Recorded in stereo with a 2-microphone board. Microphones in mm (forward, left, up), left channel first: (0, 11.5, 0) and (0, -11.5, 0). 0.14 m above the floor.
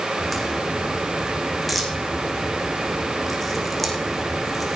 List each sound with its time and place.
0.2 s a crack: 5° left (ahead or behind), 3 m